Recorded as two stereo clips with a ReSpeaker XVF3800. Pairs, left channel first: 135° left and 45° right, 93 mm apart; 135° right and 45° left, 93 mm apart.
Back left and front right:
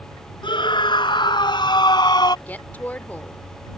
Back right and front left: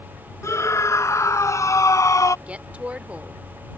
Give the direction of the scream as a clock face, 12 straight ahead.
6 o'clock.